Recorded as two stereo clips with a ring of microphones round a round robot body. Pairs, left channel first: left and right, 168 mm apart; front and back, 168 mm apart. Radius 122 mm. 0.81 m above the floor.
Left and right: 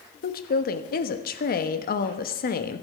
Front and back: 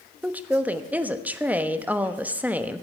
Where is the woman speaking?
100° left, 1.1 m.